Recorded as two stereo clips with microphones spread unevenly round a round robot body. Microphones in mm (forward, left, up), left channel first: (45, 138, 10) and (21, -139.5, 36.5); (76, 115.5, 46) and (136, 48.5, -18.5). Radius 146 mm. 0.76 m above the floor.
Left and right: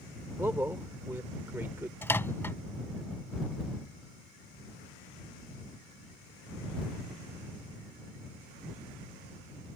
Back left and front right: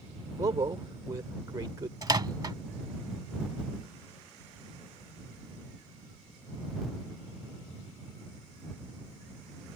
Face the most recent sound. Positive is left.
turn(degrees=0)